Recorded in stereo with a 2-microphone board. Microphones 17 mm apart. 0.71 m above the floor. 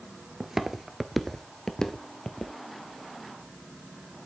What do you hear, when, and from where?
0.4 s footsteps: 35° right (ahead or behind), 0.8 m; by 2.5 s 50° left (ahead or behind), 1.1 m